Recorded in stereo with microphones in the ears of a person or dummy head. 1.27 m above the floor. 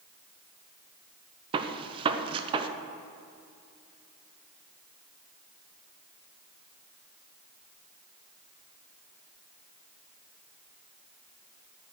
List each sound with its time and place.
1.5 s a gunshot: 25° right (ahead or behind), 0.9 m